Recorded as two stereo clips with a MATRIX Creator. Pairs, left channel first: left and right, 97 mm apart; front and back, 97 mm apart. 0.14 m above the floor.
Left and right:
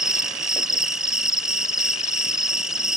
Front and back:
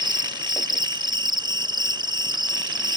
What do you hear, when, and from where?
0.0 s an insect: 170° right